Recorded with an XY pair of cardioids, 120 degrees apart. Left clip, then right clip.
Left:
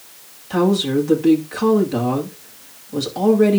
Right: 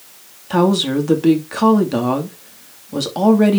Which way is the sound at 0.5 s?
35° right.